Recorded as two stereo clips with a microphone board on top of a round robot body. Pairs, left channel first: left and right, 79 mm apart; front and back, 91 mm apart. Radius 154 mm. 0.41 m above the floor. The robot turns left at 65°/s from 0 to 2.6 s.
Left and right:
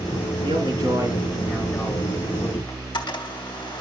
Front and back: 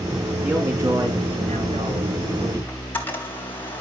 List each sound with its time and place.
0.4 s a man speaking: 95° right, 6 m; by 2.6 s 125° left, 6 m
2.7 s a camera shutter: 70° left, 3.5 m